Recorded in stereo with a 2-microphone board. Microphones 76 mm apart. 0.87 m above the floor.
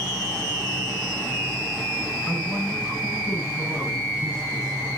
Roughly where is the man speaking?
Centre.